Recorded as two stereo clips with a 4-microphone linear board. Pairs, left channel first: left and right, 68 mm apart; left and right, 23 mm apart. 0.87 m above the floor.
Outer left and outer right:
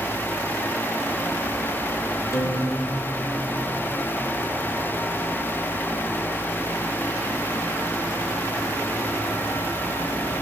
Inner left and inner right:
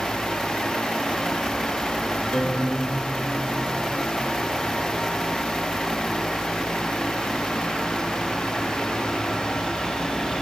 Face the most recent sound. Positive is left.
turn(degrees=45)  # may be behind; listen again after turning